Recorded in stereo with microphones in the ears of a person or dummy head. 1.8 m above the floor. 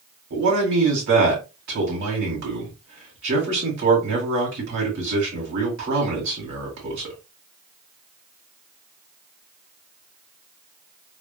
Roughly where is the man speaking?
Right.